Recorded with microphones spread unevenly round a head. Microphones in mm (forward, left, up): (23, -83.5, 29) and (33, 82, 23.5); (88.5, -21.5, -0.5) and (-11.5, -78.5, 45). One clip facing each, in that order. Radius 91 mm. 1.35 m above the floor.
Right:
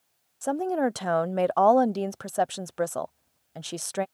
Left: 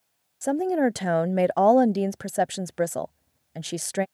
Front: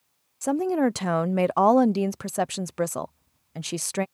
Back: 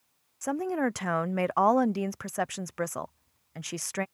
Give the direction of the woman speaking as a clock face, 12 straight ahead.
11 o'clock.